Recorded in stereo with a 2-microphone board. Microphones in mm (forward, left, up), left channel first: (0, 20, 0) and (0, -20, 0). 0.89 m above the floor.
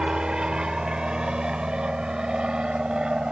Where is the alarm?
I don't hear an alarm.